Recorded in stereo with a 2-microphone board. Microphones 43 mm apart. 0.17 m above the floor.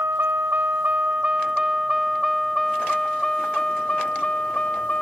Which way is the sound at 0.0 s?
65° right (ahead or behind).